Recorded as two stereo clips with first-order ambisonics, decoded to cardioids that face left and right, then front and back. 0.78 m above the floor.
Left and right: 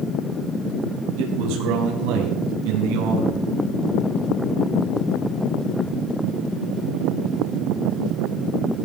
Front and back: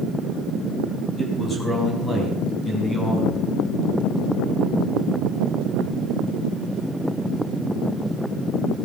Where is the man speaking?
75° right, 4.5 m; by 3.4 s 80° right, 6.5 m.